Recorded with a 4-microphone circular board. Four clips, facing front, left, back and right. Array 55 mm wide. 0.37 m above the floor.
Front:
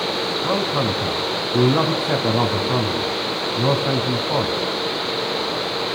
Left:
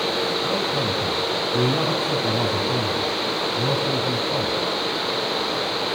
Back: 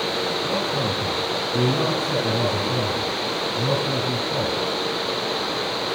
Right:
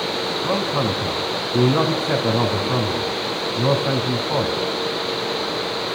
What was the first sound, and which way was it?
A man speaking, 35° right.